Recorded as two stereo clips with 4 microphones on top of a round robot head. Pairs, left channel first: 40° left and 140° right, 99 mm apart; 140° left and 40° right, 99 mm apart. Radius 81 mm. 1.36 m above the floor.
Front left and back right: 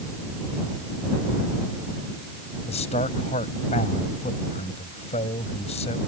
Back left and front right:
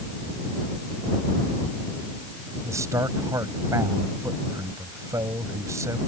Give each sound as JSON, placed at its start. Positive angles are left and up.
{"t": 2.6, "sound": "a man speaking", "azimuth_deg": 20}